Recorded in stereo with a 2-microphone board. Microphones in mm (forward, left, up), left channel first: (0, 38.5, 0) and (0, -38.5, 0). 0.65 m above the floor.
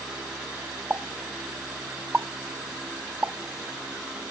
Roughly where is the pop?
Right.